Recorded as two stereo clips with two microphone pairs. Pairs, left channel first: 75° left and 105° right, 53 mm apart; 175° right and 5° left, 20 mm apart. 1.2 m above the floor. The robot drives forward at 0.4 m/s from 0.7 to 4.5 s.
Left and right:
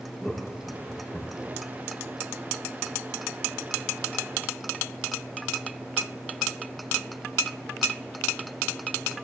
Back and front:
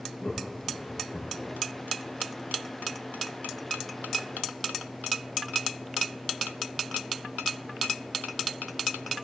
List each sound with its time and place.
0.2 s laughter: 160° left, 1.3 m; by 1.6 s 165° left, 1.7 m